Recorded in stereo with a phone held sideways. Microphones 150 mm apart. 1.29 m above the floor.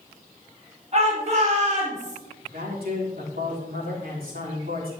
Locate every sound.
0.9 s a shout: 45° right (ahead or behind), 5 m; by 2.2 s 50° right (ahead or behind), 4 m
2.4 s a man speaking: 80° right, 4 m